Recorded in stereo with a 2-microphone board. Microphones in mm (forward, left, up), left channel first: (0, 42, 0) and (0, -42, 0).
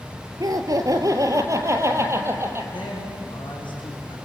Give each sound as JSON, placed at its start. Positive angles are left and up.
{"t": 0.4, "sound": "laughter", "side_deg": -50, "distance_m": 2.5}
{"t": 2.7, "sound": "a man speaking", "side_deg": 75, "distance_m": 7.0}